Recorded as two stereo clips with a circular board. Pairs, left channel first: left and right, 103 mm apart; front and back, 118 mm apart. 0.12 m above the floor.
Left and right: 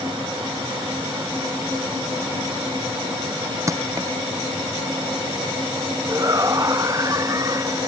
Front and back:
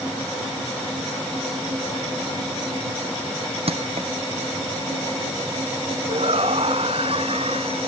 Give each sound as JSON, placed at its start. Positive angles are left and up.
{"t": 3.7, "sound": "crushing", "azimuth_deg": -145}
{"t": 6.1, "sound": "a shout", "azimuth_deg": -145}